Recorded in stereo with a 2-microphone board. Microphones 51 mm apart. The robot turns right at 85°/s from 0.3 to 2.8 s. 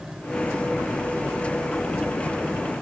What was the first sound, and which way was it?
Only background noise.